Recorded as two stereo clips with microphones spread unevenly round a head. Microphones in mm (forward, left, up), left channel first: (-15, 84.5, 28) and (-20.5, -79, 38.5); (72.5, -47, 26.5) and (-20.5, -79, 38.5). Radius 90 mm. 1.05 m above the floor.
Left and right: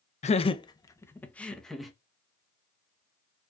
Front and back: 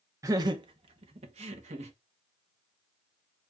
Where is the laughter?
130° left, 0.7 m; by 1.9 s straight behind, 1.2 m.